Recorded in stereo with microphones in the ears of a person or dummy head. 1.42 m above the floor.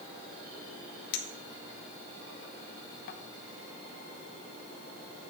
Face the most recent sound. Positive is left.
turn(degrees=65)  # may be behind; listen again after turning